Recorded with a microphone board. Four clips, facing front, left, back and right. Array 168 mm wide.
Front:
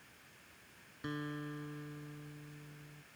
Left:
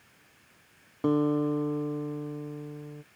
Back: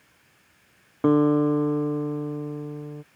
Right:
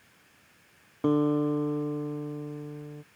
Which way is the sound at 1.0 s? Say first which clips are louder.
Right 1 dB, back 24 dB; 175° right.